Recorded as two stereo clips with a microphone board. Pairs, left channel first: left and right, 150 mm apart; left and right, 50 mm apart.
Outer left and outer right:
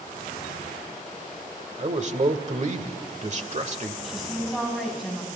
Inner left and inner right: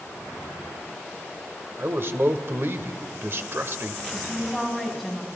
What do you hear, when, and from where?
1.8 s a man speaking: 50° right (ahead or behind), 1.4 m
4.0 s a woman speaking: centre (ahead or behind), 4 m